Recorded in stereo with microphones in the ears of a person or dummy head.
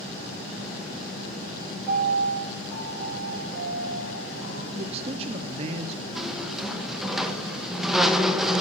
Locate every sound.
1.9 s a piano: centre (ahead or behind), 7.5 m
4.7 s a man speaking: 35° right (ahead or behind), 0.8 m
6.2 s a squeak: centre (ahead or behind), 1.2 m